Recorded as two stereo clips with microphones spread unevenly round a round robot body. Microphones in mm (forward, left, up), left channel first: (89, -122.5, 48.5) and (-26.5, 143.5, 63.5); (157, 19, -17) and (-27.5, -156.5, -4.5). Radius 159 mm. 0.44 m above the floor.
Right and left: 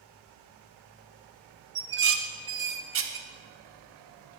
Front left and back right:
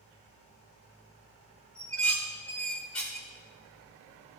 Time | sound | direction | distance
1.8 | dishes clattering | 125° left | 0.8 m